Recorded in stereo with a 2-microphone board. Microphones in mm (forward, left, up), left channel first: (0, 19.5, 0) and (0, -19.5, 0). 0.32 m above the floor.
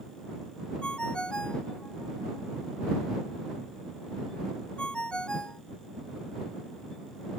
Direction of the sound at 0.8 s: 25° left (ahead or behind).